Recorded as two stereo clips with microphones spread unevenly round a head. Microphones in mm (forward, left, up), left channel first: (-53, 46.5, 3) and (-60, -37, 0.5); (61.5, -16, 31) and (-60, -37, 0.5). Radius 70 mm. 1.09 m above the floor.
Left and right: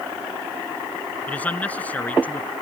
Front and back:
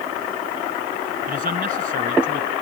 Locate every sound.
1.3 s a man speaking: 160° left